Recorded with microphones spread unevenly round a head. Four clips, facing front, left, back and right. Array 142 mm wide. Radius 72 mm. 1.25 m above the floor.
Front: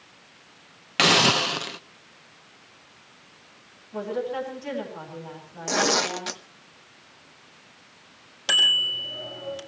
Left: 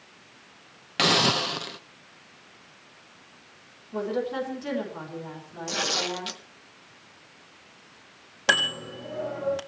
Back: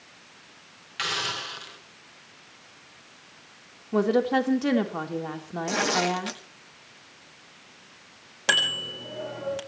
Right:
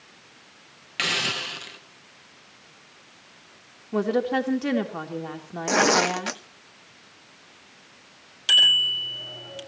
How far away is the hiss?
About 0.8 m.